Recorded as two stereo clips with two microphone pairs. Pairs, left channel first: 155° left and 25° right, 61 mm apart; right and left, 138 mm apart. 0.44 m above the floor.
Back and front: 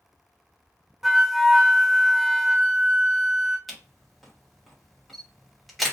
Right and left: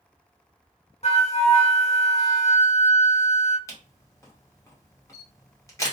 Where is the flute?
105° right, 0.6 m.